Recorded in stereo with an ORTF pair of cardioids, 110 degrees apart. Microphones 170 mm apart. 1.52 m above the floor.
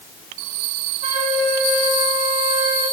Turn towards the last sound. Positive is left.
turn(degrees=-40)